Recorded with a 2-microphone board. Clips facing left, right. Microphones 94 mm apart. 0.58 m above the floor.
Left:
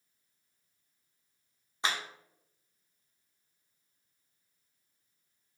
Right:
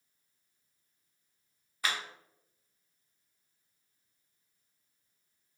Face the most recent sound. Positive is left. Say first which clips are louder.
# left 1 dB
turn(degrees=25)  # may be behind; listen again after turning